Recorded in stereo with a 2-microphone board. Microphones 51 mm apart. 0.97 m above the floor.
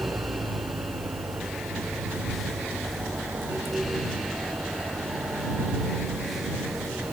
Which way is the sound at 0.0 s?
75° right (ahead or behind).